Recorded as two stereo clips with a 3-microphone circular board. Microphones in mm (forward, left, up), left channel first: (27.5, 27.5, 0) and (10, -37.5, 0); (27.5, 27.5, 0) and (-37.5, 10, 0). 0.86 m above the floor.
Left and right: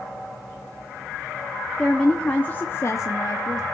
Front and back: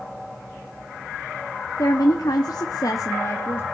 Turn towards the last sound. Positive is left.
turn(degrees=70)